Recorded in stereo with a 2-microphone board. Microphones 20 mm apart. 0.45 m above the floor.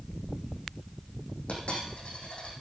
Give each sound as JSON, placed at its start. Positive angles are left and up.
{"t": 1.5, "sound": "a dropped coin", "side_deg": 70, "distance_m": 5.5}